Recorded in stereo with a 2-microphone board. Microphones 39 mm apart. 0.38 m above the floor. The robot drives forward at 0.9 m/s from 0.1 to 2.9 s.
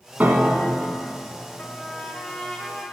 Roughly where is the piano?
Right.